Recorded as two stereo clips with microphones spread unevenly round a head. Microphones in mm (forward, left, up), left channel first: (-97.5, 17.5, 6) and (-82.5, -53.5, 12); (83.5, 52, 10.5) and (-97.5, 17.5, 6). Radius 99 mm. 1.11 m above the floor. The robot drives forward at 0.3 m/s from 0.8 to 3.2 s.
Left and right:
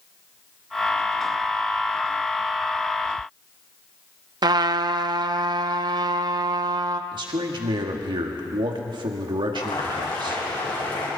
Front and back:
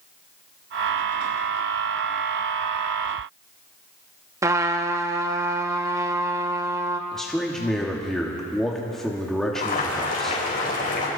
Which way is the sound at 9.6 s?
55° left.